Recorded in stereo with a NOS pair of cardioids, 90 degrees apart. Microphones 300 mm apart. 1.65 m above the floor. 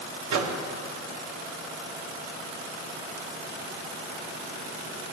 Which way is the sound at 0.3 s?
65° right.